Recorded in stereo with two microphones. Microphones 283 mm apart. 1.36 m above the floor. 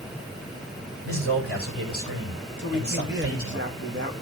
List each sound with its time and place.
1.1 s a man speaking: 50° right (ahead or behind), 6.5 m
2.6 s a man speaking: 40° right (ahead or behind), 2 m